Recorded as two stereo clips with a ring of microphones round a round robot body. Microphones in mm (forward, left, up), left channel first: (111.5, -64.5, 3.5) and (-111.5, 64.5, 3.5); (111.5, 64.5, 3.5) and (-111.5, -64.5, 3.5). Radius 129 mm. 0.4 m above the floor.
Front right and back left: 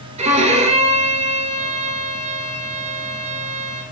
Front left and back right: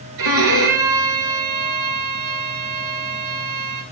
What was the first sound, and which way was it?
A violin, 145° right.